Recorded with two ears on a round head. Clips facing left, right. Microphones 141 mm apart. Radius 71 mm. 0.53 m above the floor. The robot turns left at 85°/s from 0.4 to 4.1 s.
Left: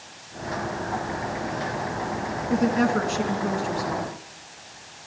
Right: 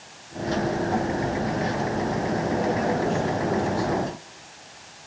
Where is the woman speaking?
140° left, 4.5 m; by 4.1 s 5° left, 4.5 m.